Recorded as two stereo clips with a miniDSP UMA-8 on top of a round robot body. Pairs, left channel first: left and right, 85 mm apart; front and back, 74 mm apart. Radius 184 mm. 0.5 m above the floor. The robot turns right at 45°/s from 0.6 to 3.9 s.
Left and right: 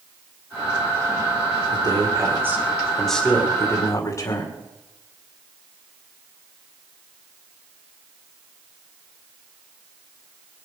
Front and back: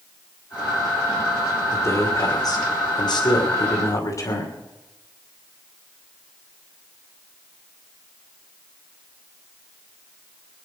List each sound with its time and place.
1.7 s a man speaking: 60° right, 3 m; by 4.5 s 40° left, 3 m